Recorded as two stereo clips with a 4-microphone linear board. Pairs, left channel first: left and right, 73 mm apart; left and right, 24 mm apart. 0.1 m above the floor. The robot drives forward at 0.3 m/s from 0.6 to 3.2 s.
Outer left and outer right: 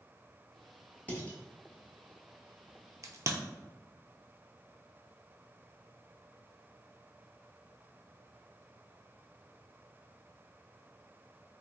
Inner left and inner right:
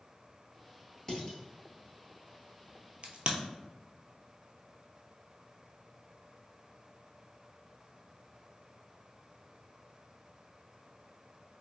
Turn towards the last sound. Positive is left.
turn(degrees=-45)  # may be behind; listen again after turning